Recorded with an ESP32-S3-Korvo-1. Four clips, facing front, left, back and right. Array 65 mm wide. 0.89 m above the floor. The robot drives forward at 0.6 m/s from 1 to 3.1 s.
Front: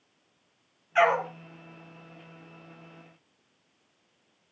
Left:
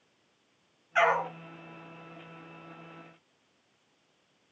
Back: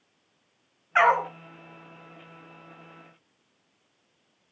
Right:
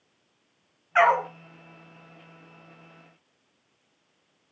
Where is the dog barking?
150° right, 2.5 m.